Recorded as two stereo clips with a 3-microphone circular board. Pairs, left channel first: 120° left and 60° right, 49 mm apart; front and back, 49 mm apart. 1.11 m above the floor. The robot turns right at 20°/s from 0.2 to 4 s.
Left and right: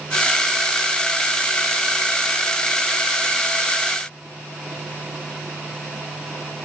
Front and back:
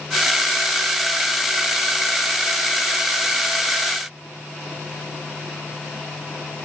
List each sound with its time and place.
Only background noise.